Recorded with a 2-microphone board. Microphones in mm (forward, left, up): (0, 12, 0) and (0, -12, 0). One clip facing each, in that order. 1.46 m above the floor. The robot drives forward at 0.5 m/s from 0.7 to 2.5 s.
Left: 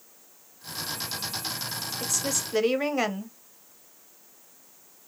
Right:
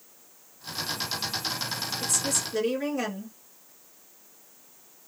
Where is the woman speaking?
30° left (ahead or behind), 0.7 m; by 3.4 s 40° left (ahead or behind), 0.6 m.